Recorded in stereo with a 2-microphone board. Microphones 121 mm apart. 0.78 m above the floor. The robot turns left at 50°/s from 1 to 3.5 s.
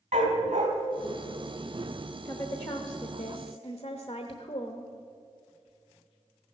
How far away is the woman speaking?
About 0.9 m.